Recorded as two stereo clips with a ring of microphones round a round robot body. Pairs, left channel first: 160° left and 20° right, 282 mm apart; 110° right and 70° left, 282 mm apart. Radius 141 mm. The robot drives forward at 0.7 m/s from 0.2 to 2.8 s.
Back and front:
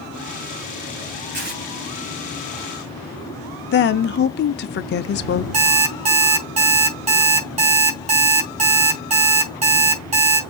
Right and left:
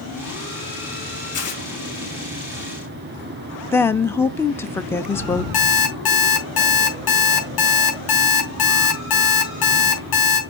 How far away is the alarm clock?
About 3.5 m.